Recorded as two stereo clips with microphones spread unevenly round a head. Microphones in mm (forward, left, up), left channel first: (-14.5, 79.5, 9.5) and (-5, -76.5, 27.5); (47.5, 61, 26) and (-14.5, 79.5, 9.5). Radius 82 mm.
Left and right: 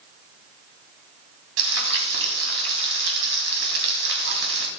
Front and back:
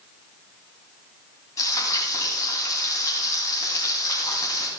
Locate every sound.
1.6 s frying: 85° right, 3 m